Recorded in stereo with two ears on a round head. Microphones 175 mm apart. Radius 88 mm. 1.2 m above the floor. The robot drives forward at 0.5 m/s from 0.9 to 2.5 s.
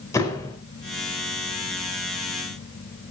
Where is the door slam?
15° left (ahead or behind), 4.5 m.